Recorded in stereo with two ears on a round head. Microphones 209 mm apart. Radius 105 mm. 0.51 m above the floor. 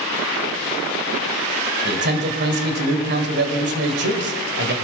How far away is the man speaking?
About 2 m.